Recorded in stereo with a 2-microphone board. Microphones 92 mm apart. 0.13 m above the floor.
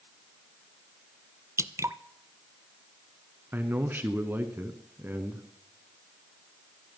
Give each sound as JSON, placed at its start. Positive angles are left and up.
{"t": 1.6, "sound": "dripping", "side_deg": -30, "distance_m": 0.5}
{"t": 3.5, "sound": "a man speaking", "side_deg": -20, "distance_m": 1.3}